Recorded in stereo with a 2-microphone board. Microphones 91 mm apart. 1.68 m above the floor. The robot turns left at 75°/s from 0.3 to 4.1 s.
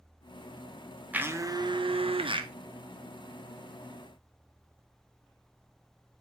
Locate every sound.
1.1 s a blender: 15° right, 0.8 m; by 2.5 s 120° right, 0.8 m